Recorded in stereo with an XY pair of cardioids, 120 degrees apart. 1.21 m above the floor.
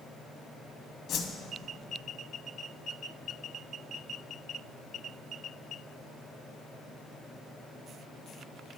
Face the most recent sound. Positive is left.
turn(degrees=55)